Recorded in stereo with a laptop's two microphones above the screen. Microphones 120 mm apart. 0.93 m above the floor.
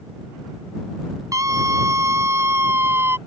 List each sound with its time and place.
1.3 s a scream: 30° right (ahead or behind); by 3.2 s 20° right (ahead or behind)